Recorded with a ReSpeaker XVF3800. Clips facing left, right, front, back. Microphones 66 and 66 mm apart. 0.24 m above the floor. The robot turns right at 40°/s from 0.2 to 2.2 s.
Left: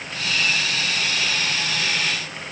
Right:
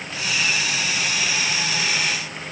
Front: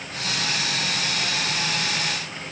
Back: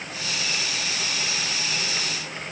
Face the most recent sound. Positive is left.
No sound to turn to.